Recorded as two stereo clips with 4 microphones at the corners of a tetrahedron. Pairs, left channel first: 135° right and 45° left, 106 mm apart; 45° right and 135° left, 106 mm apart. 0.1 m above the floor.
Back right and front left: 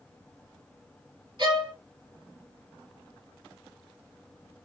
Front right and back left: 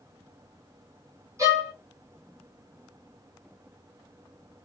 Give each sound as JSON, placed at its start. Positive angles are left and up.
{"t": 1.4, "sound": "a violin", "azimuth_deg": 80, "distance_m": 1.1}